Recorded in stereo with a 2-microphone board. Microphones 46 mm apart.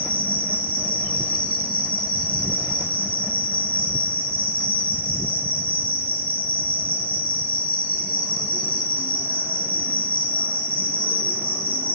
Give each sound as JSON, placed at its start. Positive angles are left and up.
{"t": 0.0, "sound": "an insect", "side_deg": -55, "distance_m": 4.5}